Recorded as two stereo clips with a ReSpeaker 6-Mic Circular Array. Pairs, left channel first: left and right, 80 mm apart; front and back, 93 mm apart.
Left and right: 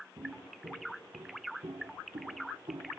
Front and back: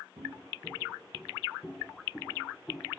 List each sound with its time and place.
0.2 s footsteps: 130° right, 2 m; by 2.9 s 65° right, 2.5 m